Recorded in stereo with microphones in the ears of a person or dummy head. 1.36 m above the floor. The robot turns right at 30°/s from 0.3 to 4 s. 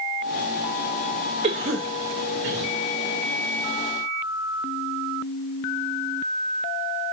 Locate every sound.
1.4 s a cough: 30° right (ahead or behind), 0.6 m; by 2.7 s 65° right (ahead or behind), 0.6 m